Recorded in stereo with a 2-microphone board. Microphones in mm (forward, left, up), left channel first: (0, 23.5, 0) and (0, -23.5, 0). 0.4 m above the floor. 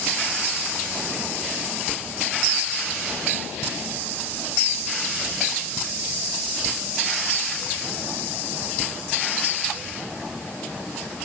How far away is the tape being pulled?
I don't hear tape being pulled.